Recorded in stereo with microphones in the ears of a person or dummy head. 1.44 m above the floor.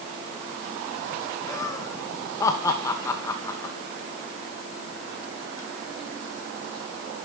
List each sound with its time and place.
1.5 s laughter: 25° left (ahead or behind), 2 m